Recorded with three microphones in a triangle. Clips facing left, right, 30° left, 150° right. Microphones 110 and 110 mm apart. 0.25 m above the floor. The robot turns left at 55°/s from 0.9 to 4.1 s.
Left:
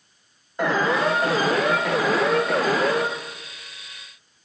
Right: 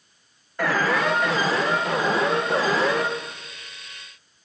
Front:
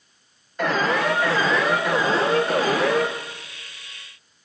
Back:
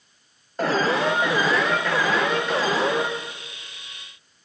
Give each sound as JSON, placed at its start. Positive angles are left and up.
{"t": 0.6, "sound": "an alarm", "azimuth_deg": 160, "distance_m": 4.0}